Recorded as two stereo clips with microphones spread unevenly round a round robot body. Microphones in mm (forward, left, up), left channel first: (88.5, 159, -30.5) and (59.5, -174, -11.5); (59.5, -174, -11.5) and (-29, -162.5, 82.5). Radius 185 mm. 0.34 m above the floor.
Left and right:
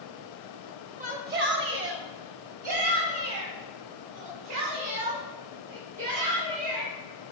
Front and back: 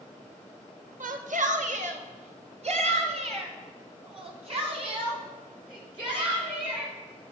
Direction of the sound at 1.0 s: 155° right.